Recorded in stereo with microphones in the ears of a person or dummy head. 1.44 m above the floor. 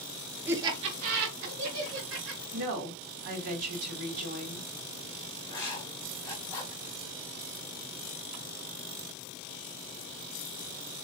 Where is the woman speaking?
70° right (ahead or behind), 1.8 m.